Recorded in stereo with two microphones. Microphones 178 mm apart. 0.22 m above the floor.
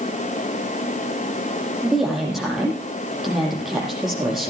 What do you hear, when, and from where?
1.8 s a woman speaking: centre (ahead or behind), 8.5 m